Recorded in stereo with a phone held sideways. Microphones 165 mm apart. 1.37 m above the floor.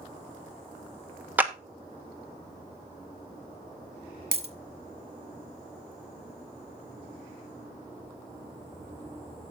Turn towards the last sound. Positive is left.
turn(degrees=-40)  # may be behind; listen again after turning